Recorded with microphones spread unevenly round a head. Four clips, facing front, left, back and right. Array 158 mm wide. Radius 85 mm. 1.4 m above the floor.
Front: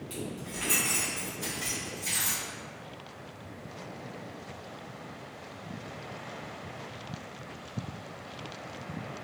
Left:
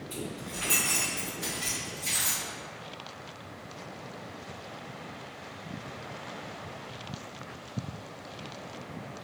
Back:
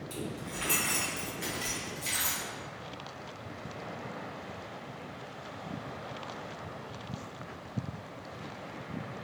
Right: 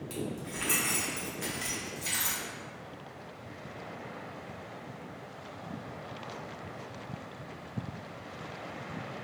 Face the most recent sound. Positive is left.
turn(degrees=-125)